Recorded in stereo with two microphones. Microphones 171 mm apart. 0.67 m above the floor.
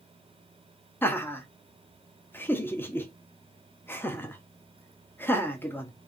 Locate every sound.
1.0 s laughter: 15° left (ahead or behind), 0.5 m